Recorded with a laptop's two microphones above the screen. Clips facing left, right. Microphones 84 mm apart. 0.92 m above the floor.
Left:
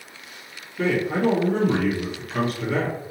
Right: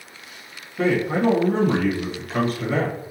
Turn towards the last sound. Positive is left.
turn(degrees=-35)  # may be behind; listen again after turning